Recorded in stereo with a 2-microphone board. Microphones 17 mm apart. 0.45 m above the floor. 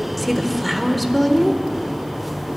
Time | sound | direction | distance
0.2 | a woman speaking | centre (ahead or behind) | 1.1 m